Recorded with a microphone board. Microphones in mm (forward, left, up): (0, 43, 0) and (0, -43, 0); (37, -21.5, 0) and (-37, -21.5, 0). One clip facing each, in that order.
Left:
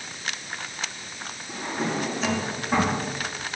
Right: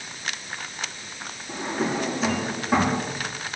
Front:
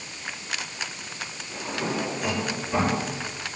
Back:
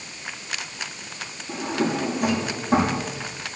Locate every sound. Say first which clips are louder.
1.5 s a drawer: right 2 dB, back 5 dB; 175° right, 7 m